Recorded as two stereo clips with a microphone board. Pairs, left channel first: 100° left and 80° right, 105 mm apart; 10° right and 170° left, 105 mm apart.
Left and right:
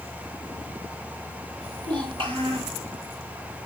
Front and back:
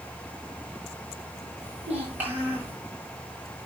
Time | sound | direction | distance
1.6 | a child speaking | 115° right | 7.5 m